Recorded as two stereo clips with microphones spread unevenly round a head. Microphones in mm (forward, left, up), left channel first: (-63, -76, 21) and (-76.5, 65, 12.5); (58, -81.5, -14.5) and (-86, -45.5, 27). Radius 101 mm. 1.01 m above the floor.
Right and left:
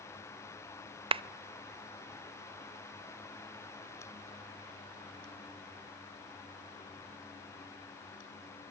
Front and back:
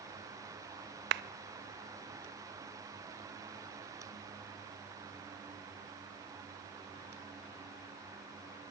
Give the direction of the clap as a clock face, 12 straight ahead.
7 o'clock.